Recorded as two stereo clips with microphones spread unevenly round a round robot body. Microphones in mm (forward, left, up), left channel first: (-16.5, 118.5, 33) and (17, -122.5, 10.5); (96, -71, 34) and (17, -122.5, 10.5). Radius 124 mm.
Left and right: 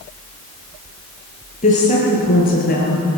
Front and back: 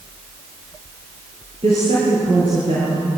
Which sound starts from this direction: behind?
A woman speaking, at 1.6 s.